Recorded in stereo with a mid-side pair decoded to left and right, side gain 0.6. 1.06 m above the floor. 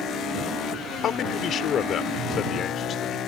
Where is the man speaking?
50° left.